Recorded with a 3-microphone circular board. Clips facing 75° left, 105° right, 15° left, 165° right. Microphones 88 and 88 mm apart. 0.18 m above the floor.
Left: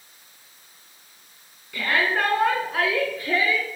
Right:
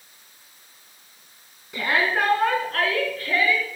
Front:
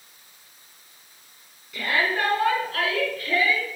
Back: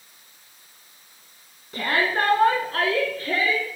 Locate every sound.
1.7 s a shout: 165° right, 1.9 m; by 3.7 s 135° left, 3.5 m